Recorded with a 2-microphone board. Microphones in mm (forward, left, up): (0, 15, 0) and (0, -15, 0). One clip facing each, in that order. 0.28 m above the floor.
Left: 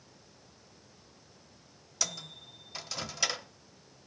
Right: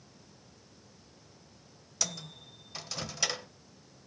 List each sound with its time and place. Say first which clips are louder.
2.0 s a microwave: left 1 dB; 5° left (ahead or behind), 0.7 m